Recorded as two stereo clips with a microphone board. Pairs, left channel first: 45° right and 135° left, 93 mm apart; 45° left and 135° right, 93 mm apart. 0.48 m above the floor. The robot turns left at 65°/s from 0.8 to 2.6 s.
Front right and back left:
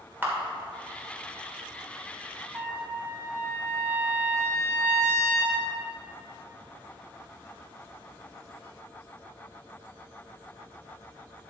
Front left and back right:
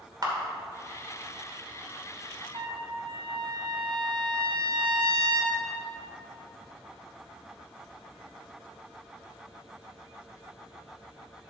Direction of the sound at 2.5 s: 160° right.